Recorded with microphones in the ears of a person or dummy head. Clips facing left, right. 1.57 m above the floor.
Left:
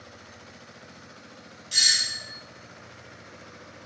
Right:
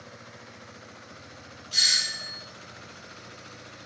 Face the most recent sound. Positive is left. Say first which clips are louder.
# left 1 dB
turn(degrees=30)  # may be behind; listen again after turning